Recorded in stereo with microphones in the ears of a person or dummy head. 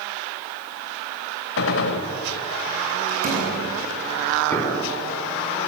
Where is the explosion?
20° left (ahead or behind), 5 m.